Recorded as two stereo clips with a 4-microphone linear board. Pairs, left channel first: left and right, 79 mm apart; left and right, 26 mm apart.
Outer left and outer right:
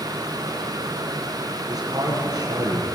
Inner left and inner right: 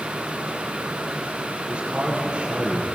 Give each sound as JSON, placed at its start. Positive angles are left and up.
{"t": 1.7, "sound": "a man speaking", "side_deg": -55, "distance_m": 8.5}